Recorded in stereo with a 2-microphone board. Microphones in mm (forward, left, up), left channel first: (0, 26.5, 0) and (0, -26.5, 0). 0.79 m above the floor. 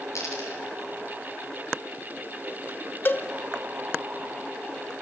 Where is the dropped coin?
85° left, 5 m.